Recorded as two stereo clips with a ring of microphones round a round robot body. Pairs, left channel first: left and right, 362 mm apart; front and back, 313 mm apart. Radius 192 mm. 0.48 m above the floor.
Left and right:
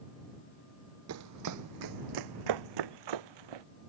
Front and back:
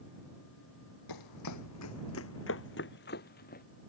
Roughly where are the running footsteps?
Ahead right.